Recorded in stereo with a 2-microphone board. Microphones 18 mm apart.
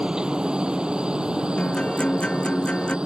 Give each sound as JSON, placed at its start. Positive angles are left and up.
{"t": 0.0, "sound": "a helicopter", "side_deg": -55}
{"t": 1.6, "sound": "a guitar", "side_deg": 80}